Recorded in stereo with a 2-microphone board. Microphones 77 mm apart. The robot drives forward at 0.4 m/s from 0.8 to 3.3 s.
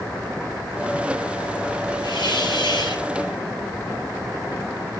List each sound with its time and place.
2.0 s a hiss: 75° left (ahead or behind), 6 m; by 3.0 s 70° left (ahead or behind), 6 m